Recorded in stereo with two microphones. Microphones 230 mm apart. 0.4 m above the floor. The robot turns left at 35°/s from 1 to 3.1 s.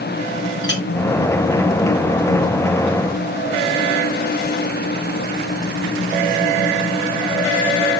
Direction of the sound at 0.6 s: 60° left (ahead or behind).